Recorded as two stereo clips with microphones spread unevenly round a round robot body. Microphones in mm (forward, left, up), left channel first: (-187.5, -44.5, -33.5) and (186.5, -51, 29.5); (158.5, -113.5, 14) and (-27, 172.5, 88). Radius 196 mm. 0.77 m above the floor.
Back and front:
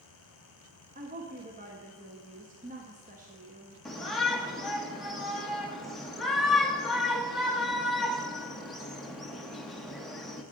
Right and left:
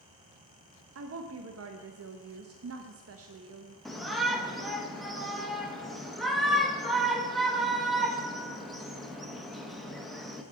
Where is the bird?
No bird in this recording.